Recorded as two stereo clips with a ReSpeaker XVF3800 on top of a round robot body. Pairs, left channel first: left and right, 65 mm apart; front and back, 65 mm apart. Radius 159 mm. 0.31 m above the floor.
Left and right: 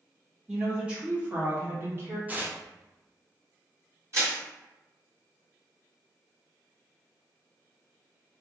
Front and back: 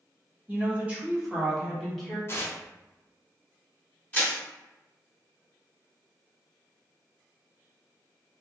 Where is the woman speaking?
160° right, 1.5 m; by 2.2 s 75° right, 1.6 m.